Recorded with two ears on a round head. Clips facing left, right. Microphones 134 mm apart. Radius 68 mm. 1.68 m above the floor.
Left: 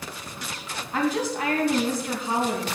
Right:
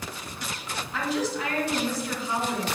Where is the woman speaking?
45° left (ahead or behind), 2.5 m.